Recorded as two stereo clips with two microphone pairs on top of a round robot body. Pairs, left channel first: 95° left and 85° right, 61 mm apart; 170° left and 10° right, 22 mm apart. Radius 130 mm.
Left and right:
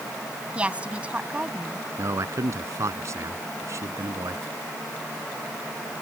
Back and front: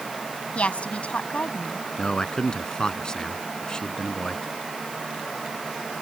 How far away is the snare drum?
I don't hear a snare drum.